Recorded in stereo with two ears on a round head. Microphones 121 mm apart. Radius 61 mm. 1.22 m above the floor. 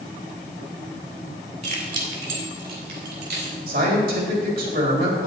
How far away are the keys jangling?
About 2 m.